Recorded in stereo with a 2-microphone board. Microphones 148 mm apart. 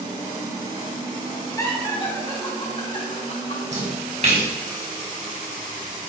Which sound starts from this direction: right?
A splash, at 3.7 s.